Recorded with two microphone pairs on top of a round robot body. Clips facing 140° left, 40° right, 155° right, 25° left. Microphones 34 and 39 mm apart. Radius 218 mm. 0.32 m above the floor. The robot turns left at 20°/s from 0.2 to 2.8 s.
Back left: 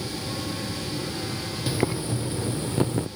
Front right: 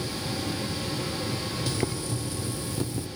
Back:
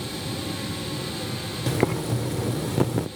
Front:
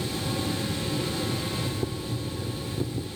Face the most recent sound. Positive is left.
turn(degrees=-165)